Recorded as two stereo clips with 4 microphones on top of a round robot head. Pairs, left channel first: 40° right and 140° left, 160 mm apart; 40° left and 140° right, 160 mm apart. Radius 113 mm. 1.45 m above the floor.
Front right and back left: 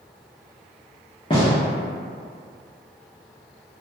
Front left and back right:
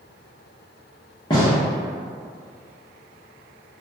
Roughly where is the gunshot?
Ahead.